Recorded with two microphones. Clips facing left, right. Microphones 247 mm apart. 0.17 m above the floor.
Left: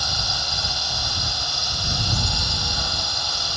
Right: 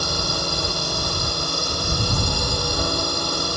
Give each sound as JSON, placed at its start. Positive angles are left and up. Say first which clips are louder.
{"t": 0.0, "sound": "a drone", "louder": "right 8 dB", "side_deg": -55}